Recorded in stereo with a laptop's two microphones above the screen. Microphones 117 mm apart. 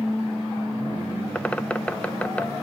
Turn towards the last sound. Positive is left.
turn(degrees=10)  # may be behind; listen again after turning